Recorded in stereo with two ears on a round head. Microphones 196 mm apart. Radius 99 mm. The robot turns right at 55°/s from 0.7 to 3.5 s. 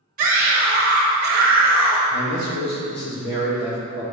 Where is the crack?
No crack in this recording.